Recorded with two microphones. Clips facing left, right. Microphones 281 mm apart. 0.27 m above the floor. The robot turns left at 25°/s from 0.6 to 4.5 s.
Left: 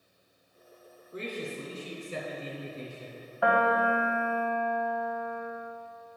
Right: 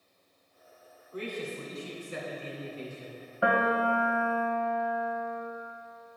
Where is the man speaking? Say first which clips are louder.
Even; 160° left, 3 m; by 3.3 s 105° left, 3 m.